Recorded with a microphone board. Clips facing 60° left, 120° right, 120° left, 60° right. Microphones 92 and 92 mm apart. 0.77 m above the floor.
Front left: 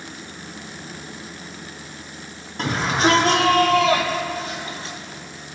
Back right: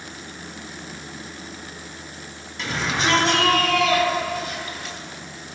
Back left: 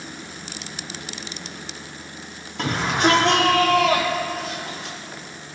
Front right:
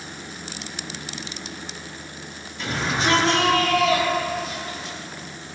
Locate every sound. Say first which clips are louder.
2.6 s a shout: front left 5 dB, back left 4 dB; 105° left, 6 m; by 5.0 s 120° left, 4 m